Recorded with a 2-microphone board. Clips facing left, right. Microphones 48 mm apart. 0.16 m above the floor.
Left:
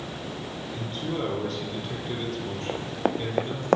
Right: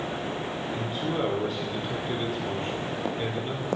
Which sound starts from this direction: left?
Running footsteps, at 2.7 s.